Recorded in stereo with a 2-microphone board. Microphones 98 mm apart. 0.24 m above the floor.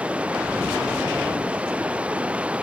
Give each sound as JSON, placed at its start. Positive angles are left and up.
{"t": 0.0, "sound": "running water", "side_deg": -10}